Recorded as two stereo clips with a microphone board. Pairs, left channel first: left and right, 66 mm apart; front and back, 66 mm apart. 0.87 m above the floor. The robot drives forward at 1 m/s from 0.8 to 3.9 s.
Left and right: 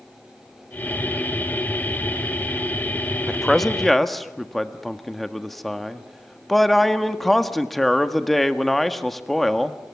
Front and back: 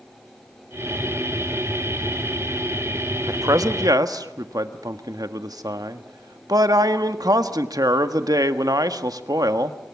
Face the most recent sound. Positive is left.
turn(degrees=175)